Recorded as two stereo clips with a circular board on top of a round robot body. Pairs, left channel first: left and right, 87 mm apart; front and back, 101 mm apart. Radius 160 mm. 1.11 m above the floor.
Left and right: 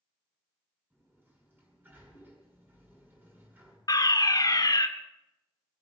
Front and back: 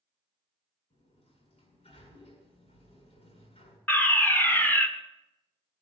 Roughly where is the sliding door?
Ahead right.